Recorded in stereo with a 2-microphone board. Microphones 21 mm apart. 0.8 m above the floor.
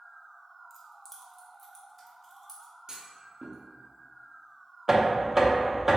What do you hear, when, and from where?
0.7 s keys jangling: 5° right (ahead or behind), 0.7 m; by 2.7 s 5° left (ahead or behind), 1.7 m
2.9 s a clunk: 35° right (ahead or behind), 0.5 m
4.9 s knocking: 25° right (ahead or behind), 0.6 m